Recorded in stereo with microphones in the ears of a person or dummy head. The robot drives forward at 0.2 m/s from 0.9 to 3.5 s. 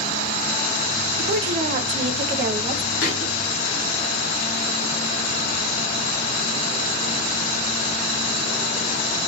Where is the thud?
55° left (ahead or behind), 1.9 m.